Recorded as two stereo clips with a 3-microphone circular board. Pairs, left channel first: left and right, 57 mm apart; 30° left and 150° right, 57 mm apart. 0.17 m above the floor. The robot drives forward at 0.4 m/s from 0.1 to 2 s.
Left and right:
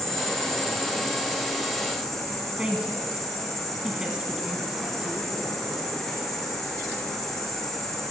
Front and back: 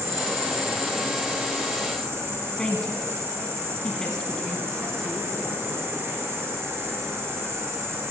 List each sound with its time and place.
0.0 s an insect: 170° left, 3 m
2.6 s a woman speaking: 35° right, 1.3 m